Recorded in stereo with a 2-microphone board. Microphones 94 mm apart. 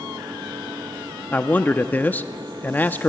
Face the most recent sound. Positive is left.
turn(degrees=20)  # may be behind; listen again after turning